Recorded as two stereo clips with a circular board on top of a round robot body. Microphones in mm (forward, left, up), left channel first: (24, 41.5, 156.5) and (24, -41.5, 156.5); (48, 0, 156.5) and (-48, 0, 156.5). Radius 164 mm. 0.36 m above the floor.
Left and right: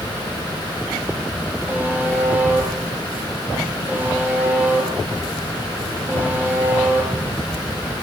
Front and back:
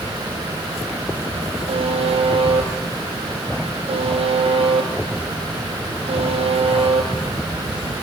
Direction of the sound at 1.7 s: 160° right.